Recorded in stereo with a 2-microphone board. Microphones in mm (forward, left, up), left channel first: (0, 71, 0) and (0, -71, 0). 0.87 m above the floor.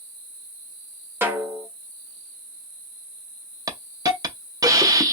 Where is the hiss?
25° right (ahead or behind), 0.5 m.